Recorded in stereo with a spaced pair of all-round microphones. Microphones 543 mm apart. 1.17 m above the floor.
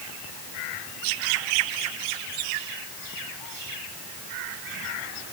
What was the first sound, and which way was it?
Only background noise.